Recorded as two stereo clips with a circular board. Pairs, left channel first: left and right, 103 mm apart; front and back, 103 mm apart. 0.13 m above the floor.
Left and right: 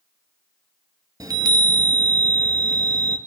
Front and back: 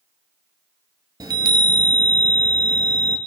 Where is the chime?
135° right, 0.6 m.